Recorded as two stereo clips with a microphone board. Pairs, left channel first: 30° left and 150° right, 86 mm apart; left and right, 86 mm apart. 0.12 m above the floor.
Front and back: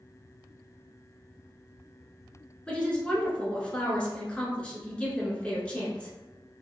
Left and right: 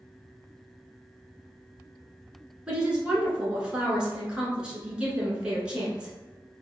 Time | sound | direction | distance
2.7 | a woman speaking | 25° right | 1.1 m